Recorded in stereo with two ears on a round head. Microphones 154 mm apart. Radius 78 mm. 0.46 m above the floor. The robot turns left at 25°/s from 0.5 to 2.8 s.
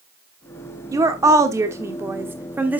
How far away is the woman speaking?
About 1.1 m.